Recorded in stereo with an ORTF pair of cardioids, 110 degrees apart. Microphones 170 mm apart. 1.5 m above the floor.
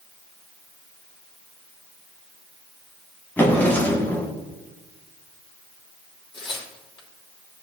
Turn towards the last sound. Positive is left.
turn(degrees=30)